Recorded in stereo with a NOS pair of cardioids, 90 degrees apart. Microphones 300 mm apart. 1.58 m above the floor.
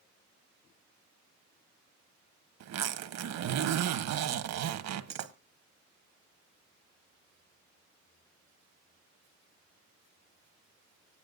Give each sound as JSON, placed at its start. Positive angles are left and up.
{"t": 2.6, "sound": "a zipper", "azimuth_deg": -65, "distance_m": 1.3}